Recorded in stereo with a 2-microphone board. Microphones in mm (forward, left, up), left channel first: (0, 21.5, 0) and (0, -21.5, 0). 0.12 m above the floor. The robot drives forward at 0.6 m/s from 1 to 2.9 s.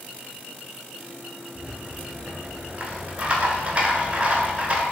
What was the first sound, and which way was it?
A rattle, 25° right (ahead or behind).